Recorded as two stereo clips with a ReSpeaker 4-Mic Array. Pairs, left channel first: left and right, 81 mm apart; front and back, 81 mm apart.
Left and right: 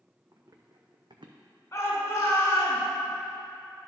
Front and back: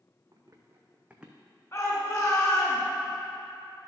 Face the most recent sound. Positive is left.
turn(degrees=45)